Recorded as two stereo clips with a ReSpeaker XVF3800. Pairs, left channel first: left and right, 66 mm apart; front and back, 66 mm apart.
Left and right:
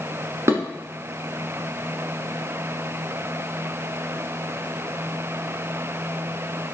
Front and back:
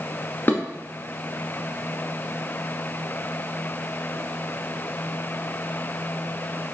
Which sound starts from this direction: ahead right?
Dishes clattering, at 0.5 s.